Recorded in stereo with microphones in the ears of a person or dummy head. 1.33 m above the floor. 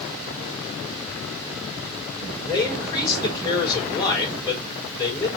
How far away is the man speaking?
About 3.5 m.